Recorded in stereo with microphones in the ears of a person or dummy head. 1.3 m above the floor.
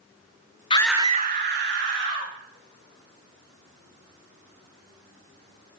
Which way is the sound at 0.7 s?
25° left (ahead or behind).